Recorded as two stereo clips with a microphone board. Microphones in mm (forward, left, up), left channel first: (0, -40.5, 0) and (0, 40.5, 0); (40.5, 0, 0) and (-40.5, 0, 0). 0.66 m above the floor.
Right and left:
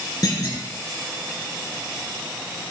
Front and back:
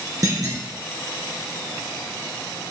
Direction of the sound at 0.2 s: 135° right.